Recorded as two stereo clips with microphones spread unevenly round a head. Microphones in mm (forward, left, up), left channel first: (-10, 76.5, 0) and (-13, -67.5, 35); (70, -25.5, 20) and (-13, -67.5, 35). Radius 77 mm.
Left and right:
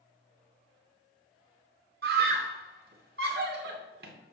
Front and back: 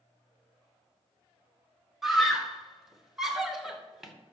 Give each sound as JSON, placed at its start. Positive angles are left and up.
{"t": 2.0, "sound": "a scream", "azimuth_deg": -65, "distance_m": 2.5}